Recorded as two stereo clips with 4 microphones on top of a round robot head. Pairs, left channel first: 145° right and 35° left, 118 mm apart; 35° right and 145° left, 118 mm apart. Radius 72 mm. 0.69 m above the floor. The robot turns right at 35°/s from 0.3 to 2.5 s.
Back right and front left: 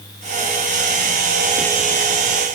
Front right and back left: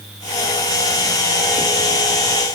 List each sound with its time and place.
Only background noise.